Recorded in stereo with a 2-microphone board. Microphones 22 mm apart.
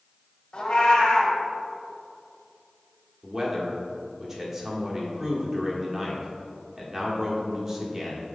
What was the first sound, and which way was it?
A cat meowing, 35° left (ahead or behind).